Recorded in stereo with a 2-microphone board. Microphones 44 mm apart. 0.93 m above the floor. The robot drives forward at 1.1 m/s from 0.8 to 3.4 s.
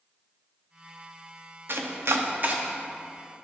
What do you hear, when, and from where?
1.7 s chopping: 60° right (ahead or behind), 0.7 m; by 2.6 s 40° right (ahead or behind), 0.9 m